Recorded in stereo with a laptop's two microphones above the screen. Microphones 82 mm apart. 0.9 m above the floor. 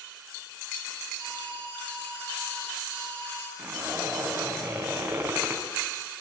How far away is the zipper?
About 5 m.